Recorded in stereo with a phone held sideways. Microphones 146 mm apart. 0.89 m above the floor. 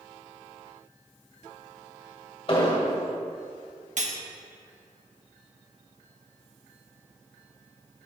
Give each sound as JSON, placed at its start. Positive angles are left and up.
{"t": 2.5, "sound": "an explosion", "side_deg": 40, "distance_m": 1.2}
{"t": 4.0, "sound": "cutlery clinking", "side_deg": -60, "distance_m": 1.0}